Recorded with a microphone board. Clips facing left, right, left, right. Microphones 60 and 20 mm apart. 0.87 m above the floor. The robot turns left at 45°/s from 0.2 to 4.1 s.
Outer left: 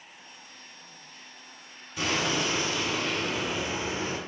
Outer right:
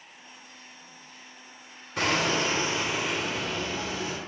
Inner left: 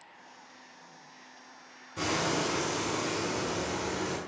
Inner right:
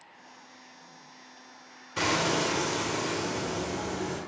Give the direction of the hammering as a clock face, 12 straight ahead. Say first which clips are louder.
Outer right 3 dB, inner right 3 dB; 4 o'clock.